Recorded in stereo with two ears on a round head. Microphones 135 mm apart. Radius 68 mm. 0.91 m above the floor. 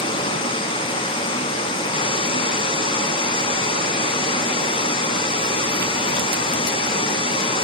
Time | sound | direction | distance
0.0 | running water | 35° left (ahead or behind) | 0.9 m